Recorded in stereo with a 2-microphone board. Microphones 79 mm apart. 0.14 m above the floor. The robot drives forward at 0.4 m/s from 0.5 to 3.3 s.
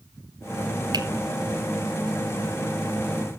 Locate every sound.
0.9 s a finger snap: 60° right (ahead or behind), 2 m